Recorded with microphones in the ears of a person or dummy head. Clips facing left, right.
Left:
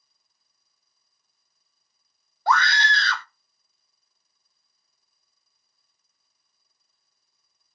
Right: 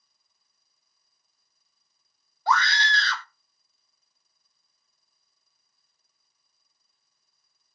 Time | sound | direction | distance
2.5 | a scream | 55° left (ahead or behind) | 0.5 m